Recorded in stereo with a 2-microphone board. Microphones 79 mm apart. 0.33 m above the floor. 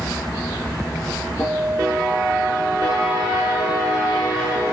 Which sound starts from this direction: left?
A guitar, at 1.4 s.